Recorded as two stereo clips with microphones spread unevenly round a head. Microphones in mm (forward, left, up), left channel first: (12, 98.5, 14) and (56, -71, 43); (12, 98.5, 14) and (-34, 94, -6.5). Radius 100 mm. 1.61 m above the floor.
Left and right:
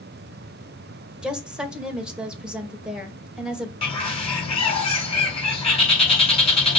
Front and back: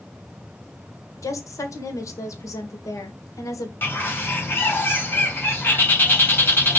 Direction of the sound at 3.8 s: 45° left.